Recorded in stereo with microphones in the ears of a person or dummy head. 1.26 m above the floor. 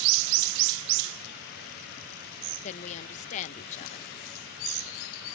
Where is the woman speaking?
40° left (ahead or behind).